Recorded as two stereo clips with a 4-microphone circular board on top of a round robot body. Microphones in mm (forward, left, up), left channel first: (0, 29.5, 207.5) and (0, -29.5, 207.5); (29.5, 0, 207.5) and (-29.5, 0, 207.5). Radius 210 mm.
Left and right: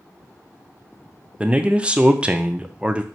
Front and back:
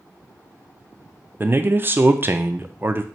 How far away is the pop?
I don't hear a pop.